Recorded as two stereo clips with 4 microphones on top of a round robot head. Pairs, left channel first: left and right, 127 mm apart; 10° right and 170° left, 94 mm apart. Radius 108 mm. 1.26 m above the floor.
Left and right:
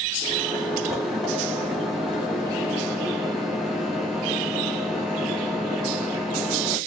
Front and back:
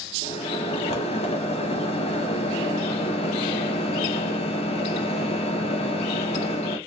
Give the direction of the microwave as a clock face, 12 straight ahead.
12 o'clock.